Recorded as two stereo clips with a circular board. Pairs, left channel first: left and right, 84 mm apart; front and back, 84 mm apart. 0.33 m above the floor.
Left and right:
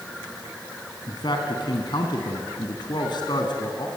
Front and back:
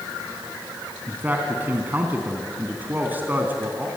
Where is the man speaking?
110° left, 2.5 m.